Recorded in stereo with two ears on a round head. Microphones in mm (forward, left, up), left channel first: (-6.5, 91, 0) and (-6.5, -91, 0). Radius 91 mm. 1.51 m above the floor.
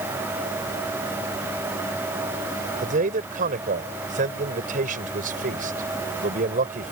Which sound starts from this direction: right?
A man speaking, at 2.8 s.